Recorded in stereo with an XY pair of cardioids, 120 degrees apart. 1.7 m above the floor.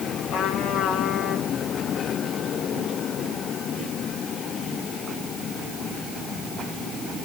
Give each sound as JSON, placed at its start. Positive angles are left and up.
{"t": 0.3, "sound": "a trumpet", "azimuth_deg": 65, "distance_m": 3.0}